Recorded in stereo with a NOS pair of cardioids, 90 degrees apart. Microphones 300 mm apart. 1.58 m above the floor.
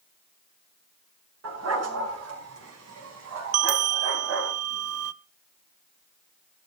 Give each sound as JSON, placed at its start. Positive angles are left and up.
{"t": 1.4, "sound": "a dog barking", "azimuth_deg": -60, "distance_m": 5.5}
{"t": 3.5, "sound": "a bell", "azimuth_deg": -55, "distance_m": 0.6}